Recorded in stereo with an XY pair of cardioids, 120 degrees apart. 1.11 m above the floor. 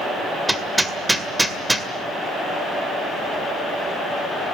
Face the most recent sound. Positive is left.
turn(degrees=-5)